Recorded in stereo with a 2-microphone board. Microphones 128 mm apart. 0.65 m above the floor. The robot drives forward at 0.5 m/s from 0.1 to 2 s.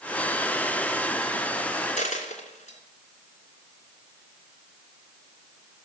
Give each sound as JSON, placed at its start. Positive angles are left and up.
{"t": 2.0, "sound": "a dropped coin", "side_deg": 75, "distance_m": 2.5}